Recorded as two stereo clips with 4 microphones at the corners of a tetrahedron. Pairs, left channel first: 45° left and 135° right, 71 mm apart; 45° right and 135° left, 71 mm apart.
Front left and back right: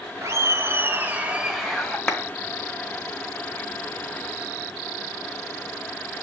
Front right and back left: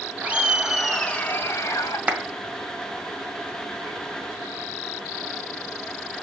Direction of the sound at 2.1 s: 95° left.